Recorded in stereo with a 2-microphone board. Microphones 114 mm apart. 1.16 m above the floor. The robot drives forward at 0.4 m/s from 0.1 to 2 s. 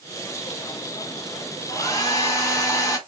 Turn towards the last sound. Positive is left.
turn(degrees=30)  # may be behind; listen again after turning